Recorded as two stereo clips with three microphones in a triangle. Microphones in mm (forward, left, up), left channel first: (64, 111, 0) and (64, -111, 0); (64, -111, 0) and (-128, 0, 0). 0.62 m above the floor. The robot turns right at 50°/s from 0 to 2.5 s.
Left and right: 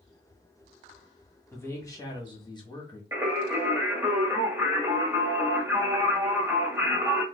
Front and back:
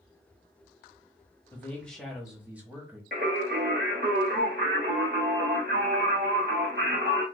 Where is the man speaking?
30° left, 1.1 m; by 3.0 s 80° left, 1.1 m.